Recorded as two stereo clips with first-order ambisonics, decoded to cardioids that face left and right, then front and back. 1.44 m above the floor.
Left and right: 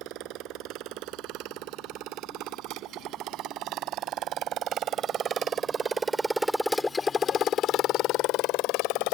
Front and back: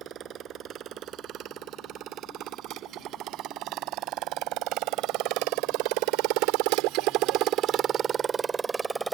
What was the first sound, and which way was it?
A motorcycle, 125° right.